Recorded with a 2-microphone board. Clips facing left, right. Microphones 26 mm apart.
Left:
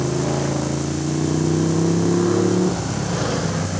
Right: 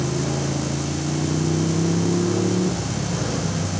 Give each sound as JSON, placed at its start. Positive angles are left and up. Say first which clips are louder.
{"t": 0.0, "sound": "a motorcycle", "louder": "left 3 dB", "side_deg": 30}